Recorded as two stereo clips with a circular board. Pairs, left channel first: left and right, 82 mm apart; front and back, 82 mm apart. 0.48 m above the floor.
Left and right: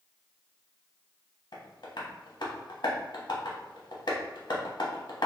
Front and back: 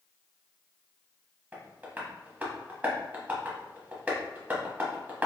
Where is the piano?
No piano in this recording.